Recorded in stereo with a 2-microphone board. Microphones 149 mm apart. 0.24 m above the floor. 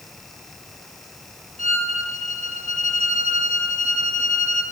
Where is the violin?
60° left (ahead or behind), 4 m.